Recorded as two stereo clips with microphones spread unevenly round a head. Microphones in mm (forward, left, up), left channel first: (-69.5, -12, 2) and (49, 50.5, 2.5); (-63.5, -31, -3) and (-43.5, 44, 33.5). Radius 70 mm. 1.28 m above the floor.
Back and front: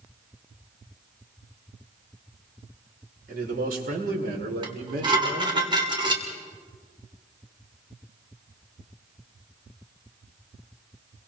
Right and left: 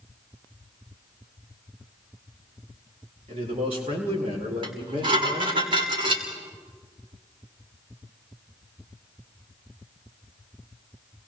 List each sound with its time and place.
3.3 s a man speaking: 45° left, 5.5 m; by 5.6 s 40° left, 4.5 m
4.6 s dishes clattering: 85° left, 3 m